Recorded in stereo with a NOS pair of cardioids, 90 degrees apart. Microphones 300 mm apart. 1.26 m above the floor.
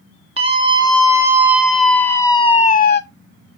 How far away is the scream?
About 1.9 m.